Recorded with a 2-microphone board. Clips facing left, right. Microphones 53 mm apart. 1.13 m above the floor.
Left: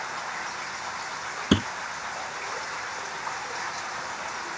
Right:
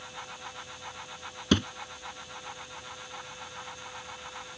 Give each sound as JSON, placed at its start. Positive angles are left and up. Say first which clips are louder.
{"t": 0.0, "sound": "running water", "louder": "left 10 dB", "side_deg": 75}
{"t": 1.5, "sound": "a thud", "louder": "left 3 dB", "side_deg": 10}